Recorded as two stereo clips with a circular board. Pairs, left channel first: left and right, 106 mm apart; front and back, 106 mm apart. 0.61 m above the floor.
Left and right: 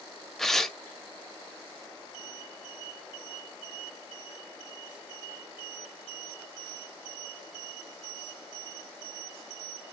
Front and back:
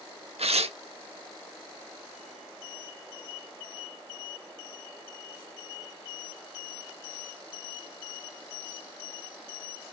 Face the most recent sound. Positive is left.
turn(degrees=175)